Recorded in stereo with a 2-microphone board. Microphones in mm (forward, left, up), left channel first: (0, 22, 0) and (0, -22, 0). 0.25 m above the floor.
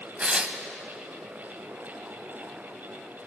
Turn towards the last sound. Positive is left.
turn(degrees=-25)  # may be behind; listen again after turning